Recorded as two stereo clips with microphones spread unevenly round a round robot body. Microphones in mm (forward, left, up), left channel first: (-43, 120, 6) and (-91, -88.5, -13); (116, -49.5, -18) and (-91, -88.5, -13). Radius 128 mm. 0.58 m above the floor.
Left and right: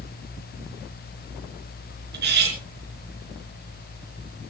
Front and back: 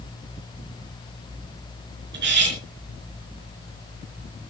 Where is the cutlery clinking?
140° right, 4.5 m.